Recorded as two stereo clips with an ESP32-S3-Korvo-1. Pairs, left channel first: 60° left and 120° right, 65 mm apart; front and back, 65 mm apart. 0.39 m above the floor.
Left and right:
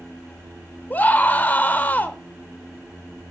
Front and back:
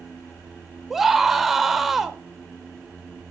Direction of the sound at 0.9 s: 95° left.